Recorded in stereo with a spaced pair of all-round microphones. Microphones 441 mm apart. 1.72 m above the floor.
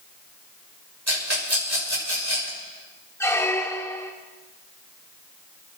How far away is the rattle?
About 6 m.